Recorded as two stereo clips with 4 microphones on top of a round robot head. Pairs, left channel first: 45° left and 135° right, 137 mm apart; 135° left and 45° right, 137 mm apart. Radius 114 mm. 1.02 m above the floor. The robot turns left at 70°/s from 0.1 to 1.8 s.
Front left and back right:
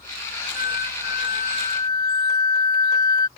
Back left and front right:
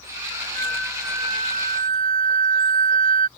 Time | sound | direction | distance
0.6 | a flute | 70° left | ?